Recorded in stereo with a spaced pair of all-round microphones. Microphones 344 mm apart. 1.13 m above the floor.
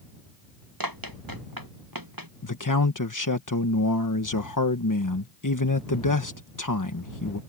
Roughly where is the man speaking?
Left.